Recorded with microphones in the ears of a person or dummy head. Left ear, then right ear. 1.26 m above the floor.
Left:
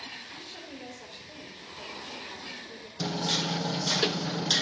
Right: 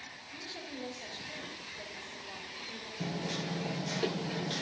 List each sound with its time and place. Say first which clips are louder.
0.3 s a woman speaking: even; 30° left (ahead or behind), 4 m
3.0 s hammering: left 10 dB; 45° left (ahead or behind), 0.6 m